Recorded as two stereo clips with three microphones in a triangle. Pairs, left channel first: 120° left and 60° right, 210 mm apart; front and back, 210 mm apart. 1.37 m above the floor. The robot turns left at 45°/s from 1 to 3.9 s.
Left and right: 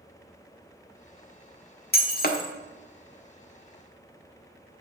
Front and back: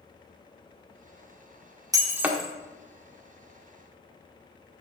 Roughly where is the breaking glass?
Behind left.